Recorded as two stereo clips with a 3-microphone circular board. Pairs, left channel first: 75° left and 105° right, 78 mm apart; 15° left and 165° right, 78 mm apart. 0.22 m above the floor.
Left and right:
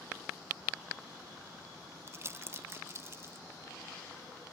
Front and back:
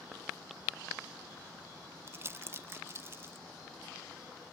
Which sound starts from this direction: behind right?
Crumpling, at 2.1 s.